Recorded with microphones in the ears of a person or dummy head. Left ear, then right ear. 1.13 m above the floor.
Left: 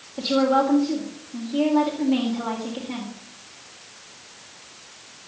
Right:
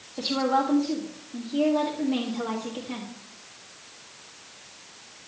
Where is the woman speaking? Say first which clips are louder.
Left 4 dB; centre (ahead or behind), 1.9 m.